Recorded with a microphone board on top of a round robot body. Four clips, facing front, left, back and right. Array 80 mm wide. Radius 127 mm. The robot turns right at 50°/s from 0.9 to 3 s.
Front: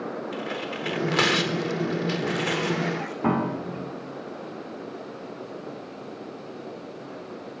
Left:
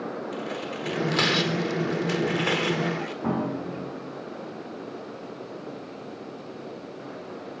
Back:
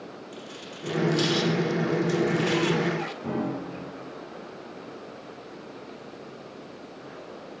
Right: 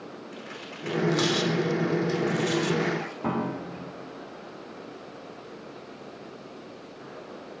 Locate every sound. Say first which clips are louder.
0.3 s tearing paper: left 8 dB, front 10 dB; 5° left, 4.5 m; by 3.1 s 110° left, 4.5 m
3.2 s a piano: left 2 dB, front 8 dB; 10° right, 3.5 m